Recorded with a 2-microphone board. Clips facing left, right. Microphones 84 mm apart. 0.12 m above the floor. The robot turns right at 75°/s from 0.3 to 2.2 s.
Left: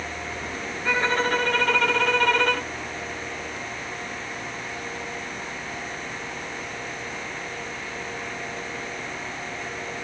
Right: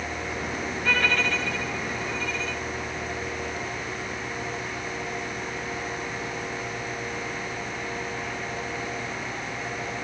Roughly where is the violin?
Ahead.